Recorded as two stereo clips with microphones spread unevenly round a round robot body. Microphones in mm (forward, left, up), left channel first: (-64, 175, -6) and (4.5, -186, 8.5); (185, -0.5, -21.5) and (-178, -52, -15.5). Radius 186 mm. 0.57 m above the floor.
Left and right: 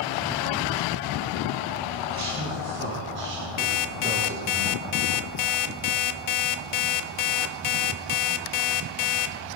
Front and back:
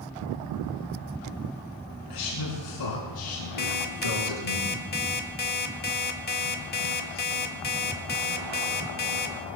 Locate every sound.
2.1 s a man speaking: 20° right, 6 m; by 4.6 s 15° right, 7 m
3.6 s an alarm clock: 75° left, 1.0 m